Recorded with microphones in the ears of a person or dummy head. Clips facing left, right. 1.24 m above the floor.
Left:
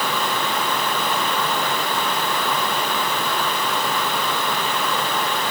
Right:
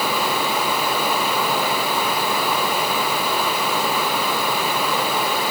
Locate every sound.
Only background noise.